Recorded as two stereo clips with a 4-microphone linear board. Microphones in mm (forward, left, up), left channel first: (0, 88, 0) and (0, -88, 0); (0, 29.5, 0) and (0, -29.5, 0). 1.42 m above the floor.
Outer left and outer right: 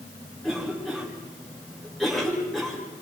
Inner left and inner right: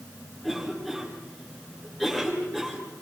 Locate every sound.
0.4 s a cough: centre (ahead or behind), 5 m